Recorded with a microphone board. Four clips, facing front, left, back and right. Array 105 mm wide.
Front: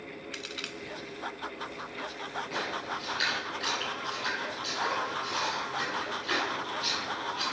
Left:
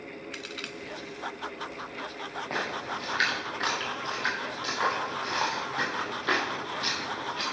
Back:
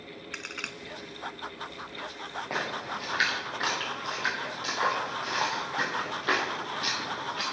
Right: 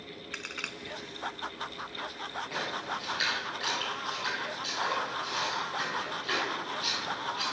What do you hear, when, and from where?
0.3 s a crack: 145° right, 0.6 m
2.5 s a splash: 135° left, 4 m